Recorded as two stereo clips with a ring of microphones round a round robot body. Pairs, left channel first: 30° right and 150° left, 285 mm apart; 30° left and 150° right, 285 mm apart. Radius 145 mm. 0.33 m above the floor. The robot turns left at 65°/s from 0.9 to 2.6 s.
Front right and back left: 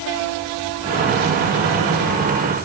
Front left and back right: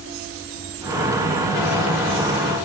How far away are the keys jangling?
No keys jangling in this recording.